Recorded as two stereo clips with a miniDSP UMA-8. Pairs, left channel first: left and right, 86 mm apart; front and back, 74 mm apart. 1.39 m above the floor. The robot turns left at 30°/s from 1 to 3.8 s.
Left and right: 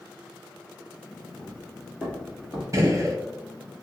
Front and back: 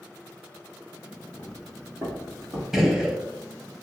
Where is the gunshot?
100° right, 0.6 m; by 3.2 s 110° right, 0.6 m.